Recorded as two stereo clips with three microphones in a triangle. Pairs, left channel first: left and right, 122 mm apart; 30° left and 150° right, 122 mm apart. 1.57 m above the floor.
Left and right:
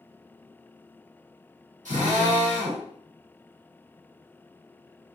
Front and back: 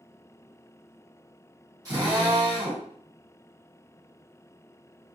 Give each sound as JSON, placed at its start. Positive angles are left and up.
{"t": 1.9, "sound": "a drill", "azimuth_deg": -90, "distance_m": 1.5}